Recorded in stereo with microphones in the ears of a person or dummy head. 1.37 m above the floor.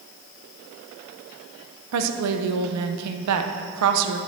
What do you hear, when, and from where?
1.9 s a woman speaking: 85° right, 0.7 m